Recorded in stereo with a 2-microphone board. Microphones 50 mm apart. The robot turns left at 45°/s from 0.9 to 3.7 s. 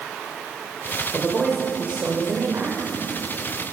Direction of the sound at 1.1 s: 10° left.